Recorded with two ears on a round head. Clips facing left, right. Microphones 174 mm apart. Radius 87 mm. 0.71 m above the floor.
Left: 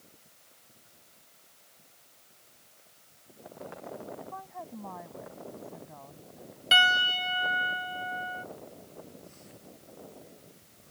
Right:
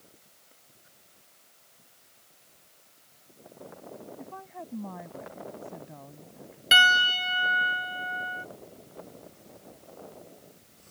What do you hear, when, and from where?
4.2 s a woman speaking: 30° right (ahead or behind)
6.7 s a piano: 25° right (ahead or behind)